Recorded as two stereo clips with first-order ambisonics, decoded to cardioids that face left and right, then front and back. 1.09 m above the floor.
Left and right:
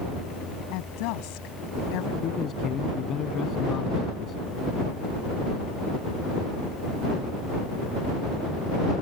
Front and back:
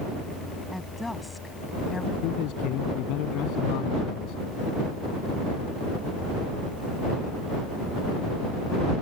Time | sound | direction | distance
0.7 | a woman speaking | 85° left | ?
2.2 | a man speaking | 30° left | ?